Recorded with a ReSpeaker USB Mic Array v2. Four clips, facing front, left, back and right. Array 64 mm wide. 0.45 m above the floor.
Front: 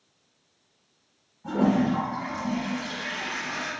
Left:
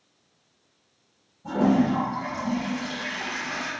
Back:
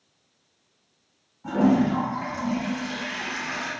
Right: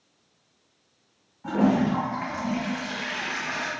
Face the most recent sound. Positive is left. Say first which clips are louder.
# left 1 dB, back 2 dB
turn(degrees=-110)